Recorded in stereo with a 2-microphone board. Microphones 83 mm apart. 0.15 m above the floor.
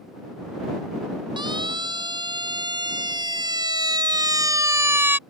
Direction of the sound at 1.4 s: 70° right (ahead or behind).